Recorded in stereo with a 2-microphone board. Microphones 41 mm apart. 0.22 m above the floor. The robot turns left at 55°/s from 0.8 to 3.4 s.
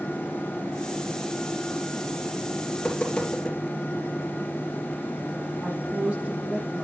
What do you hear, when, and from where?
2.7 s tapping: 45° left (ahead or behind), 4 m; by 3.6 s 10° left (ahead or behind), 4 m
5.6 s a woman speaking: 40° right (ahead or behind), 7.5 m